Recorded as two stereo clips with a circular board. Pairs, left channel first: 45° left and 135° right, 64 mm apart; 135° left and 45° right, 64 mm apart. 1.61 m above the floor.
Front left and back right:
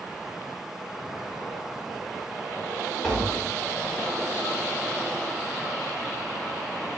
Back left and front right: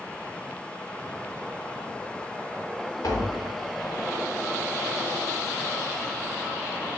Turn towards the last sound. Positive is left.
turn(degrees=125)